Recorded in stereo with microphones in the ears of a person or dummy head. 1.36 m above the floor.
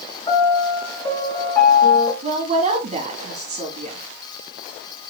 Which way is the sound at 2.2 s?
35° right (ahead or behind).